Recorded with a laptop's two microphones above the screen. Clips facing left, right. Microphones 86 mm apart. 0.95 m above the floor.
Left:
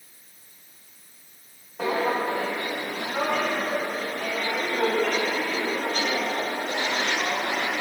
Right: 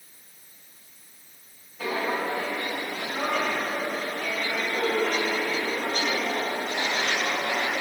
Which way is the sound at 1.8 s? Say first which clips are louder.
Left 3 dB; 70° left (ahead or behind).